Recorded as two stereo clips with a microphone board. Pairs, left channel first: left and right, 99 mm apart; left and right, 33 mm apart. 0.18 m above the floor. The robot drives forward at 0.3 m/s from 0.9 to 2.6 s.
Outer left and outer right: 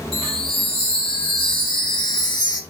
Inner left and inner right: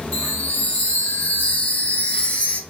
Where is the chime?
65° left (ahead or behind), 0.7 m; by 2.6 s 45° left (ahead or behind), 0.9 m.